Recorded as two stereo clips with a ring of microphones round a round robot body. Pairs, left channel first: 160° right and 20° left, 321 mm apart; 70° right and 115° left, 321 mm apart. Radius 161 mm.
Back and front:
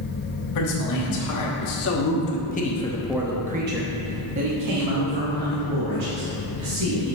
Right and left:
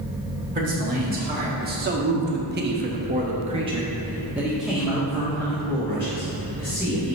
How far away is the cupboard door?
I don't hear a cupboard door.